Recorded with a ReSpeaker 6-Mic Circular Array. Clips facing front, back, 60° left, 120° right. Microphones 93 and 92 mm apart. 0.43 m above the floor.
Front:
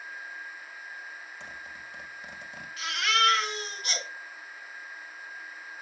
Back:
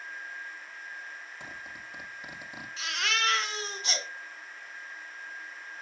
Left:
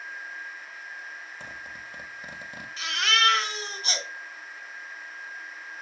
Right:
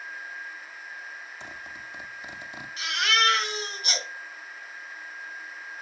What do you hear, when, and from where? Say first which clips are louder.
1.4 s a zipper: even, even; 100° left, 2.5 m
2.8 s a baby crying: front 5 dB, even; 115° left, 3 m